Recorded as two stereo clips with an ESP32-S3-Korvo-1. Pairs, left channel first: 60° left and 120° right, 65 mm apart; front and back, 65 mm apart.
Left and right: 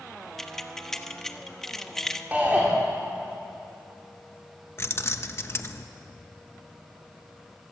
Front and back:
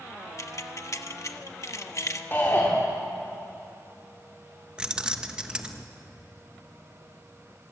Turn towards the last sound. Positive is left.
turn(degrees=105)